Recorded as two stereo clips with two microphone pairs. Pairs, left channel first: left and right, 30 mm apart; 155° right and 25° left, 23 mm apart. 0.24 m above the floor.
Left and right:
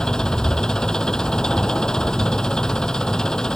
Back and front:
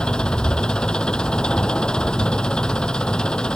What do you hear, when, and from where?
0.0 s an engine running: 155° left